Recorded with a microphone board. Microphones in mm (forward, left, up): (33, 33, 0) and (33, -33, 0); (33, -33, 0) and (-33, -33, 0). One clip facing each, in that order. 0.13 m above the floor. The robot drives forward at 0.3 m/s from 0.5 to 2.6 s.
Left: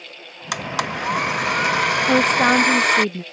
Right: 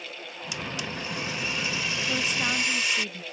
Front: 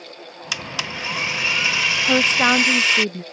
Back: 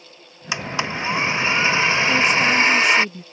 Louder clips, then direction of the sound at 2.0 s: Left 14 dB, even; 55° left.